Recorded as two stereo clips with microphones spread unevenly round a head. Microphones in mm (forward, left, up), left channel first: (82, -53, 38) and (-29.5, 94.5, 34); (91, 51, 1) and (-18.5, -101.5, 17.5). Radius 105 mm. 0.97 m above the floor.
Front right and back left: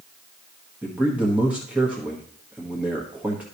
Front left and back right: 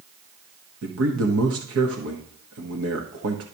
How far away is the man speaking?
About 1.2 m.